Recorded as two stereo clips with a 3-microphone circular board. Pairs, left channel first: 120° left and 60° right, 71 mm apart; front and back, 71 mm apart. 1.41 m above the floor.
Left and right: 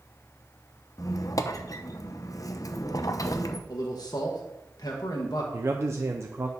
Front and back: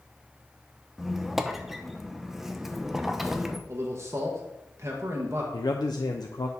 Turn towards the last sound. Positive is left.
turn(degrees=-10)